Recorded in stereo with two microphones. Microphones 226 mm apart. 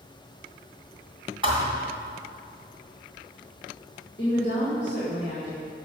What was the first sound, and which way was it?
A thud, 25° right (ahead or behind).